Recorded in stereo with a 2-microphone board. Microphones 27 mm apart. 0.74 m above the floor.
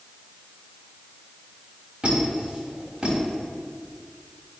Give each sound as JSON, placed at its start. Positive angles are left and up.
{"t": 2.0, "sound": "a squeak", "side_deg": -35, "distance_m": 3.0}